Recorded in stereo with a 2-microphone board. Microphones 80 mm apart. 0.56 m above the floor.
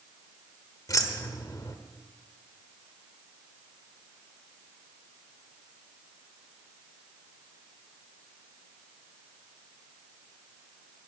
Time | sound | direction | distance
0.9 | keys jangling | 45° left (ahead or behind) | 1.2 m